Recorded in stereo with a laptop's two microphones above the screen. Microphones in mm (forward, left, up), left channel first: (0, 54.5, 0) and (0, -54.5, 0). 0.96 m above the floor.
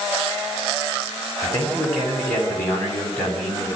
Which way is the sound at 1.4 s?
15° left (ahead or behind).